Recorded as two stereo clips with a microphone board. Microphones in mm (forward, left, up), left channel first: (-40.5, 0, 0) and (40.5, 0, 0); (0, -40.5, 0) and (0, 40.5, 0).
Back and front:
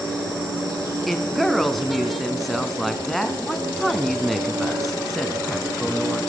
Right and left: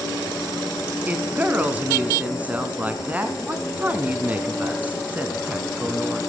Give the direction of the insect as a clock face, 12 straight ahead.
1 o'clock.